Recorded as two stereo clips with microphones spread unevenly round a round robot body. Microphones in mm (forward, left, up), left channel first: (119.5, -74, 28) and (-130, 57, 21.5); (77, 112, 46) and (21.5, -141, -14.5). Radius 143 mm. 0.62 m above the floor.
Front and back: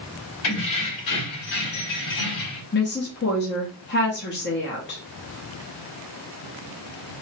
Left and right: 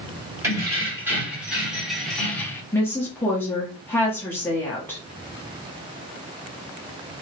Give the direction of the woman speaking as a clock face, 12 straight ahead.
1 o'clock.